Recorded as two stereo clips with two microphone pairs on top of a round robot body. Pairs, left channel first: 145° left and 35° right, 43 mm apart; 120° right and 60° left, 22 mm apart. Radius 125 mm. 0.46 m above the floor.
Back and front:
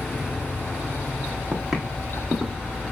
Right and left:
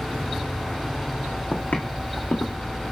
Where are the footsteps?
115° right, 2.0 m; by 2.6 s 135° right, 2.5 m.